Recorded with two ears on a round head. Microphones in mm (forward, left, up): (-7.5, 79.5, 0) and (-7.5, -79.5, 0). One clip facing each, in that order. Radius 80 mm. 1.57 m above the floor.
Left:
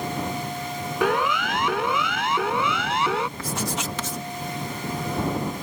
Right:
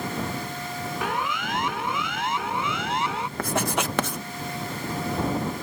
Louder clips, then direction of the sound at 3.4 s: Right 3 dB; 50° right (ahead or behind).